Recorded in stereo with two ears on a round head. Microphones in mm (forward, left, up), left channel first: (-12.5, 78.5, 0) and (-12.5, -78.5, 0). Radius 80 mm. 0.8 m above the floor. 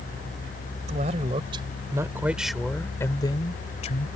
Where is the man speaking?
40° right (ahead or behind); by 4.1 s 45° left (ahead or behind).